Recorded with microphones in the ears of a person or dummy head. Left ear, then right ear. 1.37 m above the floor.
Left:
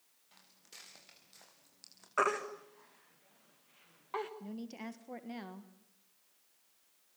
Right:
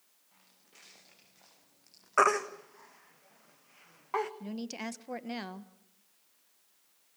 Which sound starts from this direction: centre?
A baby crying, at 2.2 s.